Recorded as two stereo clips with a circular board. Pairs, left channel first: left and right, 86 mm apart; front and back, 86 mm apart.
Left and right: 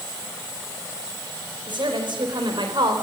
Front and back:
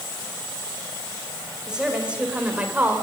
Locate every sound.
1.7 s a woman speaking: 100° right, 5 m; by 3.0 s 110° right, 3.5 m